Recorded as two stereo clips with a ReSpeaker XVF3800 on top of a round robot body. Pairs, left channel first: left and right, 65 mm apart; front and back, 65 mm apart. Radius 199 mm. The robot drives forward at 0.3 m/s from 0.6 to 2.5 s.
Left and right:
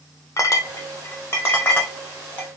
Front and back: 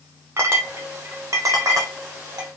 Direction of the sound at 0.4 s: 130° left.